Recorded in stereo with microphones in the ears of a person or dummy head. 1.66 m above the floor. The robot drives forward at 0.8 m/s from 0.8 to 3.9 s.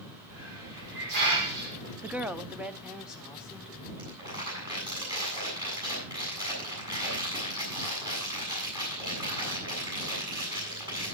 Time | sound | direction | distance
0.3 | a hiss | 65° right (ahead or behind) | 5.5 m
2.0 | a woman speaking | 15° right (ahead or behind) | 0.7 m
4.0 | crumpling | 25° right (ahead or behind) | 7.5 m